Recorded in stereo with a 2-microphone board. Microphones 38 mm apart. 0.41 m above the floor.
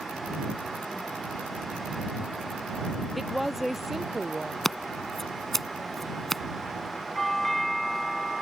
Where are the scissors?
Centre (ahead or behind).